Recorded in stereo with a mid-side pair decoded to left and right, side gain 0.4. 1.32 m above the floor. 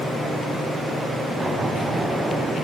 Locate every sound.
1.4 s an explosion: 35° right, 6.5 m